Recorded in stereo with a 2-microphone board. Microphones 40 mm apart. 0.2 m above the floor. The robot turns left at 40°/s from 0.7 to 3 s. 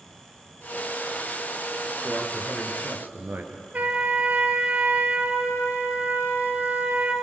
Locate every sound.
2.0 s a man speaking: 30° right, 3.5 m; by 3.6 s 65° right, 3.5 m
3.7 s a trumpet: 45° right (ahead or behind), 3 m